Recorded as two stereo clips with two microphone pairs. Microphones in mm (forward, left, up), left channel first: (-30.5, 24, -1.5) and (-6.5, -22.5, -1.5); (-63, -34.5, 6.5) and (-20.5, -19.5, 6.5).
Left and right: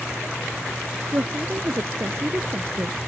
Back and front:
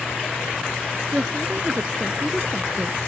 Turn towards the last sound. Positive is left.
turn(degrees=-45)